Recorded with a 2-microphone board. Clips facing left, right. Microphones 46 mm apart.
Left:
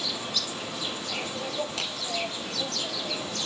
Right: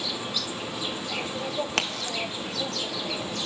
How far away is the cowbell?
No cowbell in this recording.